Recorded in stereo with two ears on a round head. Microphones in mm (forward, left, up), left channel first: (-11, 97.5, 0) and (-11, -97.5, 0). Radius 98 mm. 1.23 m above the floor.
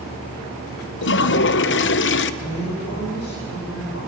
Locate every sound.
1.0 s a toilet flushing: 55° left (ahead or behind), 0.7 m
2.4 s a woman speaking: 55° left (ahead or behind), 5.5 m